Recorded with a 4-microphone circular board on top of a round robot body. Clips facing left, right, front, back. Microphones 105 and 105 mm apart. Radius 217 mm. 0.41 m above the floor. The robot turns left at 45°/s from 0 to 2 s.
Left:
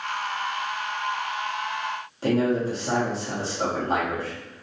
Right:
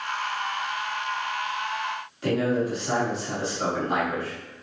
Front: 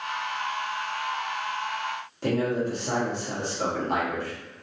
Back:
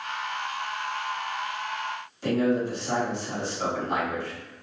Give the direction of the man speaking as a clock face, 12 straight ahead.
11 o'clock.